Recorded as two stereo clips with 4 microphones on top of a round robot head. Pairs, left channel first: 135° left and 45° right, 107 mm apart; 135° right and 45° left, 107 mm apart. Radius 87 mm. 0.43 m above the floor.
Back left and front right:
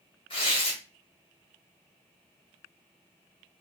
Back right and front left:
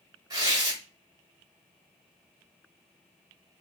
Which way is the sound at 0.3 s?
100° left.